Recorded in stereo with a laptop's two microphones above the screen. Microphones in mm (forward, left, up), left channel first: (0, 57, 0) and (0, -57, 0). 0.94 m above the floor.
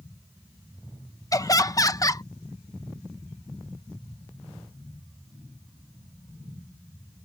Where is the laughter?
30° left (ahead or behind).